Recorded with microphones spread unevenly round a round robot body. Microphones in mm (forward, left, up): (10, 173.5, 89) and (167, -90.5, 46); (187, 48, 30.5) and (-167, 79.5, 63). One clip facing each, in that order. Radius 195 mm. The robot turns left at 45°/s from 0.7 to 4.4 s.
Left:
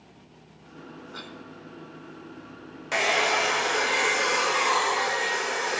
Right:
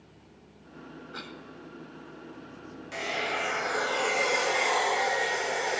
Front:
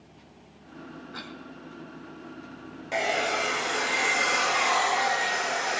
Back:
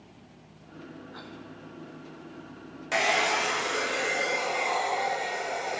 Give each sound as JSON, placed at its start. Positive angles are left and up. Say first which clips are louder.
{"t": 1.1, "sound": "a cough", "louder": "left 1 dB, front 2 dB", "azimuth_deg": 25, "distance_m": 3.0}
{"t": 2.9, "sound": "a hair dryer", "louder": "left 7 dB, even", "azimuth_deg": 115, "distance_m": 1.1}